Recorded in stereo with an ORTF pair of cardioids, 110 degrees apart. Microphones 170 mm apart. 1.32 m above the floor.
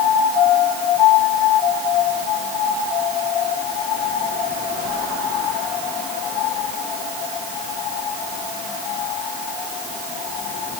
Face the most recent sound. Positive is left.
No sound to turn to.